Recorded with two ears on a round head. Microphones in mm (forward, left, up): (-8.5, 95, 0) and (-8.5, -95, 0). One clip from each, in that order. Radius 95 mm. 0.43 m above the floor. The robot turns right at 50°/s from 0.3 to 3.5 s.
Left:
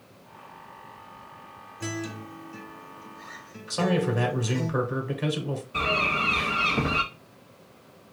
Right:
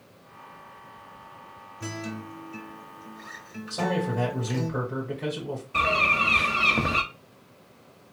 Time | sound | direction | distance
1.8 | a guitar | 20° left (ahead or behind) | 1.2 m
3.7 | a man speaking | 45° left (ahead or behind) | 1.7 m
5.7 | a bird | 20° right (ahead or behind) | 0.7 m